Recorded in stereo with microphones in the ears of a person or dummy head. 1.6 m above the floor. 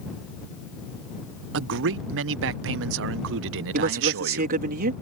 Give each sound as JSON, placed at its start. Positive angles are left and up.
{"t": 1.5, "sound": "a man speaking", "side_deg": -65}
{"t": 3.7, "sound": "a man speaking", "side_deg": -45}